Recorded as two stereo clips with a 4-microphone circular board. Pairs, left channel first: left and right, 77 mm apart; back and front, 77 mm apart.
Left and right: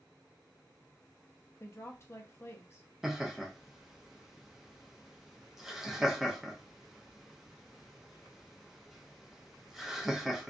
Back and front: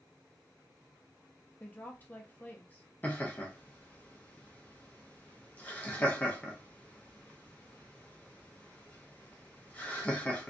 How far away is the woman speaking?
About 0.6 m.